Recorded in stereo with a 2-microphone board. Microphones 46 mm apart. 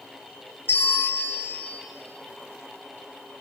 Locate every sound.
0.7 s a bell: 55° left (ahead or behind), 2.5 m